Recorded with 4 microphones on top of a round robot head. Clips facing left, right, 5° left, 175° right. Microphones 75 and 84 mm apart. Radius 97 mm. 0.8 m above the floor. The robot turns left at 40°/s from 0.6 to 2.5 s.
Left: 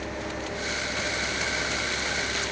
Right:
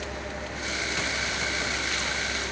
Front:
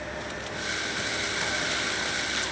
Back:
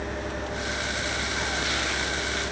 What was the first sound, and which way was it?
Only background noise.